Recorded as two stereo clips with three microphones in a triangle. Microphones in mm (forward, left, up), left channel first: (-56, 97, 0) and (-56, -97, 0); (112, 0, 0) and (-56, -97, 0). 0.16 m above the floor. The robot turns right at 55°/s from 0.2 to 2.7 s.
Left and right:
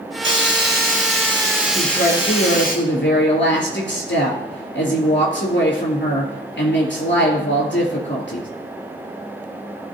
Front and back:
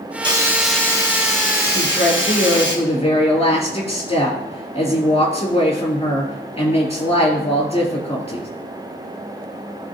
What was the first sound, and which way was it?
A hiss, 85° right.